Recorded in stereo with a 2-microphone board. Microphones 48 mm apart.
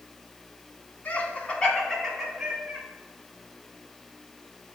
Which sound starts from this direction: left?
Laughter, at 1.1 s.